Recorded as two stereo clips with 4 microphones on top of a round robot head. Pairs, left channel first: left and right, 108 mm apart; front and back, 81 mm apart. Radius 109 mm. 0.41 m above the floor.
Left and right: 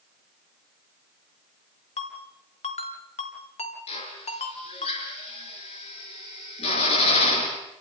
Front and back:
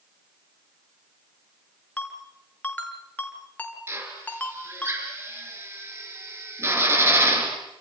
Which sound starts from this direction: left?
A ringtone, at 2.0 s.